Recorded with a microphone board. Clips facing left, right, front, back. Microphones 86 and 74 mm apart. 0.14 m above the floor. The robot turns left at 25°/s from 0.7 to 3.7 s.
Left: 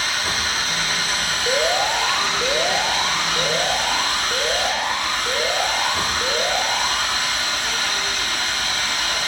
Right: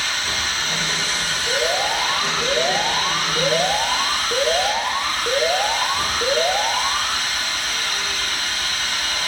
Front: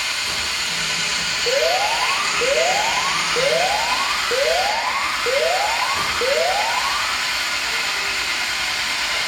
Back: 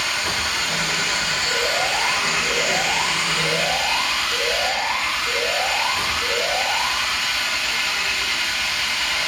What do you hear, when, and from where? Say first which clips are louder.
0.0 s an engine running: left 1 dB, back 2 dB; 140° left, 5 m; by 9.3 s 65° left, 5 m
1.5 s an alarm: left 2 dB, front 6 dB; 40° left, 6.5 m; by 7.2 s 15° right, 6.5 m